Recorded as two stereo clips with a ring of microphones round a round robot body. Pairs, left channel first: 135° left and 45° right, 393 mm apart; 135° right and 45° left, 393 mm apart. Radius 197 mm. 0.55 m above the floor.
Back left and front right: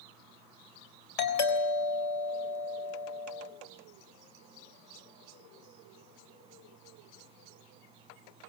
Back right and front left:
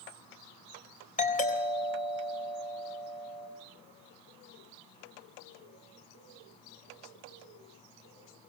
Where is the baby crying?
I don't hear a baby crying.